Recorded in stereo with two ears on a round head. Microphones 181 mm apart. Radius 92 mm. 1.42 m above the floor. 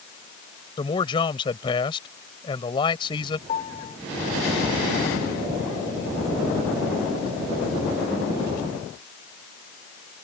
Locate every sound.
0.8 s a man speaking: 25° left (ahead or behind)
3.5 s a piano: 30° left (ahead or behind)